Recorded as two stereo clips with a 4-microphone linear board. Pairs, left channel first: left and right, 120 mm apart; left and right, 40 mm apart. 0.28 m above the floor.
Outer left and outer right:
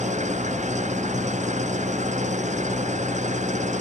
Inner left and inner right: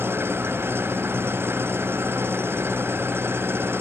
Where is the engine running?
80° right.